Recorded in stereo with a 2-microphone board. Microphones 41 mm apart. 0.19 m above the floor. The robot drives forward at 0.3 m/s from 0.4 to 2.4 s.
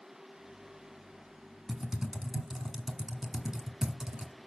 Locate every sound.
1.7 s typing on a keyboard: 10° right (ahead or behind), 1.1 m